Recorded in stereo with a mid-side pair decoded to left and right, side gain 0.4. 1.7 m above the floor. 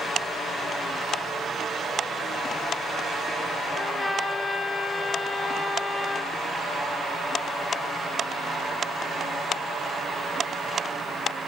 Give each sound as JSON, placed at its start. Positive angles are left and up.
{"t": 3.7, "sound": "a trumpet", "azimuth_deg": 15, "distance_m": 8.5}